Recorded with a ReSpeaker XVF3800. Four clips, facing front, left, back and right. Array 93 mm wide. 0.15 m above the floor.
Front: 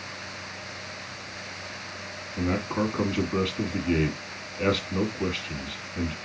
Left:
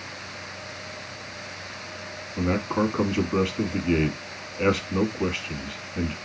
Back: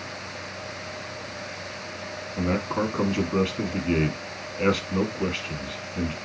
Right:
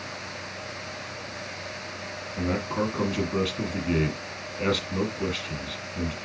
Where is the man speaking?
120° left, 1.3 m.